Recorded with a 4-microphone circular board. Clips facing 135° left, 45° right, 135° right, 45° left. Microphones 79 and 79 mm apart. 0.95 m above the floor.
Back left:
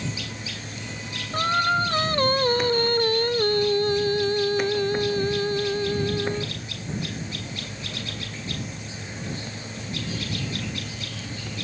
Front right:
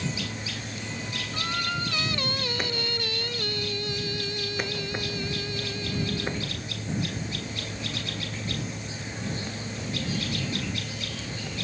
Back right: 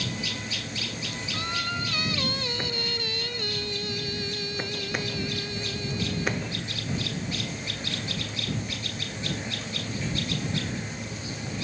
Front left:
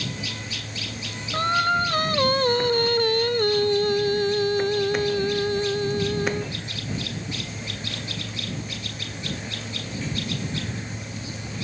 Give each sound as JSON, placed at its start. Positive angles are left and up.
{"t": 1.3, "sound": "singing", "azimuth_deg": 85}